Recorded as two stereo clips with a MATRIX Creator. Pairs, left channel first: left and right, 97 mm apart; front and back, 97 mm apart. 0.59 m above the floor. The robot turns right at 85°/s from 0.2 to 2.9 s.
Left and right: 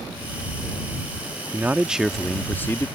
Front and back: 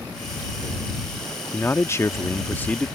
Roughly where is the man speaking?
Ahead right.